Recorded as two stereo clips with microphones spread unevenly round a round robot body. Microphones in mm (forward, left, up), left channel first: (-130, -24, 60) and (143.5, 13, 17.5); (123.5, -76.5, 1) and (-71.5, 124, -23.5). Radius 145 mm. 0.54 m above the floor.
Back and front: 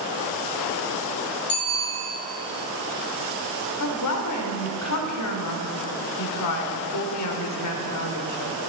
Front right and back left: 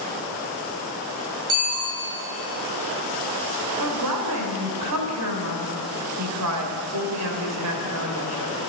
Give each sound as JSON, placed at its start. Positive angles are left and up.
{"t": 1.5, "sound": "a bicycle bell", "azimuth_deg": 115, "distance_m": 6.5}
{"t": 3.8, "sound": "a woman speaking", "azimuth_deg": 160, "distance_m": 2.5}